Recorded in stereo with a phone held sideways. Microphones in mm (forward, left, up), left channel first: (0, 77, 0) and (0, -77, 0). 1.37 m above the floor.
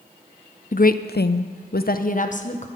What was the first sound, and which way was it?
A woman speaking, 55° left (ahead or behind).